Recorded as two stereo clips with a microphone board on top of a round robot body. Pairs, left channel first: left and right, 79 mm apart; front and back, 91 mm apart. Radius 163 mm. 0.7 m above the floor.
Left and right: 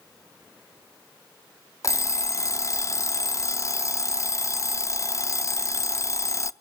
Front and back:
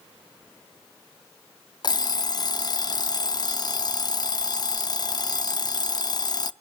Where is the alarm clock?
40° left, 0.5 m.